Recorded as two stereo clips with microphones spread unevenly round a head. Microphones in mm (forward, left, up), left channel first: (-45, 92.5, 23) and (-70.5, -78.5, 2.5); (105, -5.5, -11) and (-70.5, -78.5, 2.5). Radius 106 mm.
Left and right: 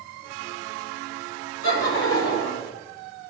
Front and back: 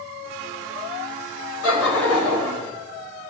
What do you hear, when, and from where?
1.6 s laughter: 50° left, 4.5 m